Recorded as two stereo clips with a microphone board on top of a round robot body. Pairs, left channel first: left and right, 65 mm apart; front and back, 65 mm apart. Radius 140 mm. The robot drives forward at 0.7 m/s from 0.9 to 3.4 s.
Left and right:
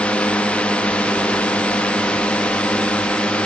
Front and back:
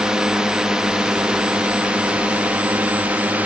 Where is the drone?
120° left; by 3.5 s 140° left.